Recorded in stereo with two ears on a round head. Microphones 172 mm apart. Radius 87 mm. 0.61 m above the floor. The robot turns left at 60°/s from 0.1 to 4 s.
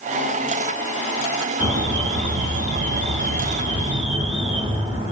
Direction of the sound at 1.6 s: Straight ahead.